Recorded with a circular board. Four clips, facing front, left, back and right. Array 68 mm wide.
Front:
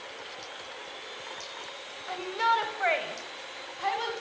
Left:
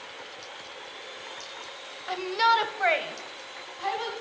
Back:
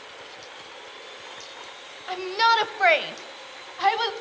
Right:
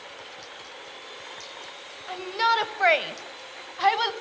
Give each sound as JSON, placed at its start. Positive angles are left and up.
{"t": 2.1, "sound": "a shout", "azimuth_deg": 140, "distance_m": 1.1}